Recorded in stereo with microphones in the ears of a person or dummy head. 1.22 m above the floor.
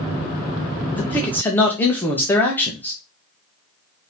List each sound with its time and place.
0.9 s a man speaking: 20° left (ahead or behind), 0.9 m